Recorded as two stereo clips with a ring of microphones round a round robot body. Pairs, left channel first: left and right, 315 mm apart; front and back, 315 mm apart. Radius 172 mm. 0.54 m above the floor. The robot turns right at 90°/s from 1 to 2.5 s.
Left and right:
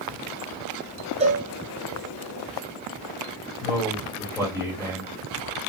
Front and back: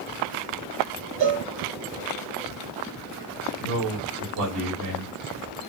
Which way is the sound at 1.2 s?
155° right.